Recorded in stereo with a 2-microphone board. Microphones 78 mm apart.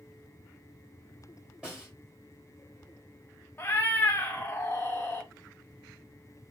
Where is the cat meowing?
30° left (ahead or behind), 0.8 m.